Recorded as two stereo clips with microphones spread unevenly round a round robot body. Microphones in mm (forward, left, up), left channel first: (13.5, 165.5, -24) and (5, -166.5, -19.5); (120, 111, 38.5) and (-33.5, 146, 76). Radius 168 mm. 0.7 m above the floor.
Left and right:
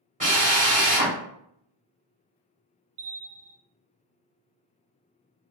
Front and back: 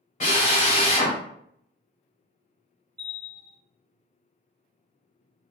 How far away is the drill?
About 1.9 m.